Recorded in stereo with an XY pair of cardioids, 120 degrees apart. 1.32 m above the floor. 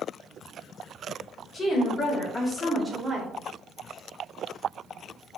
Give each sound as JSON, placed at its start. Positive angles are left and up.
{"t": 1.5, "sound": "a woman speaking", "azimuth_deg": 45, "distance_m": 1.3}